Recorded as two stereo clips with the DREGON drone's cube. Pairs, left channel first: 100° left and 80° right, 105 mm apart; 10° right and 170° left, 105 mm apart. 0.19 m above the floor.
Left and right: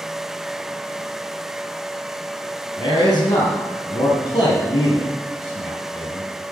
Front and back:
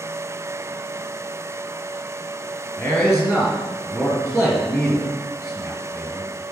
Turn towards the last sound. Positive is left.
turn(degrees=55)